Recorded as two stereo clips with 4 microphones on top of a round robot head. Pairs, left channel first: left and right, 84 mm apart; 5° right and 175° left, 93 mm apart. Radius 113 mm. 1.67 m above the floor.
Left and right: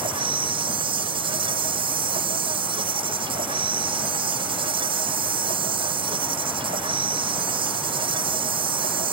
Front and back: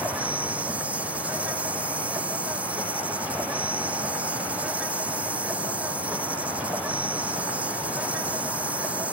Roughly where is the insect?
Right.